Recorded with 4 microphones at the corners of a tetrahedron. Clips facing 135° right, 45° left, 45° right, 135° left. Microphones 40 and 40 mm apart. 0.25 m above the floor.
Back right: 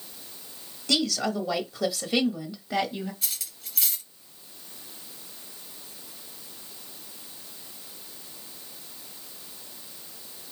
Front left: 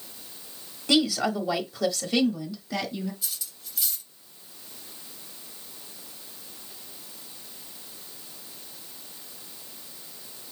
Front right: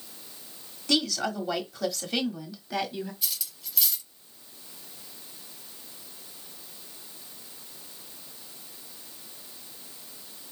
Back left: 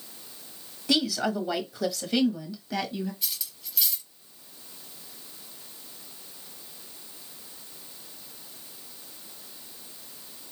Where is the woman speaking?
80° left, 1.3 m; by 3.1 s 120° right, 1.4 m.